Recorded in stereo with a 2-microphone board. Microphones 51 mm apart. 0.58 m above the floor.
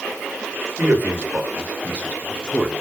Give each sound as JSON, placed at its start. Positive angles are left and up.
{"t": 0.8, "sound": "a man speaking", "side_deg": -40, "distance_m": 2.5}